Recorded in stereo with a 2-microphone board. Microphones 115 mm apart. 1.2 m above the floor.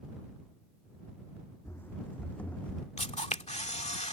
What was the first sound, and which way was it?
Running footsteps, 20° left (ahead or behind).